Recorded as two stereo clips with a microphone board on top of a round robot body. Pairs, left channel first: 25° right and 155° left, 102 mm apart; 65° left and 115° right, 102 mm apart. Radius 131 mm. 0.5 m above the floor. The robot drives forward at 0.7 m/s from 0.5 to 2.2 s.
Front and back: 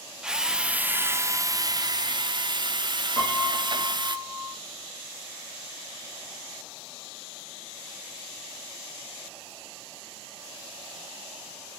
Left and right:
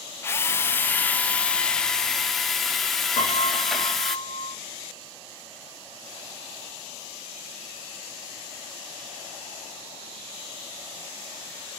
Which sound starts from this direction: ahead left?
A piano, at 3.2 s.